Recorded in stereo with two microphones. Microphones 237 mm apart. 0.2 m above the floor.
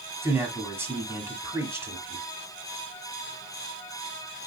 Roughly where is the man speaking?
Centre.